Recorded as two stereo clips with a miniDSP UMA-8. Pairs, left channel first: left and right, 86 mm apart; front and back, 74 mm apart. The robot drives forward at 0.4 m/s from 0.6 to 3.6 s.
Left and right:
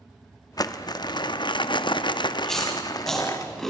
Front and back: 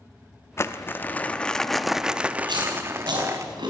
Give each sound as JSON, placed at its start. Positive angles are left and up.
{"t": 0.6, "sound": "crumpling", "azimuth_deg": 50, "distance_m": 0.8}
{"t": 2.5, "sound": "chewing", "azimuth_deg": 175, "distance_m": 6.0}